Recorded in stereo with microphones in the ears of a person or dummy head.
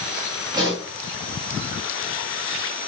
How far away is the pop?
About 5 m.